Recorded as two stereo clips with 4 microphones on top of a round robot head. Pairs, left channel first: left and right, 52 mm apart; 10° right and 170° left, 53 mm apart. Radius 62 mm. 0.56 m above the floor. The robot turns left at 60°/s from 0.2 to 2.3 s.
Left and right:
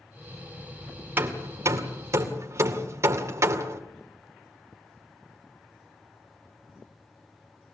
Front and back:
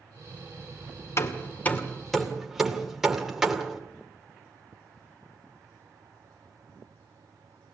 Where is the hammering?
40° right, 2 m; by 3.8 s 105° right, 2 m.